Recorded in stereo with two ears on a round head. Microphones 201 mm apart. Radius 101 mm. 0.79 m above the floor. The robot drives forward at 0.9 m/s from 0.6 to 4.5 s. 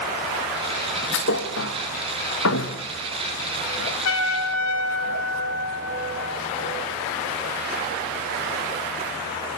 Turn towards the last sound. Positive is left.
turn(degrees=75)  # may be behind; listen again after turning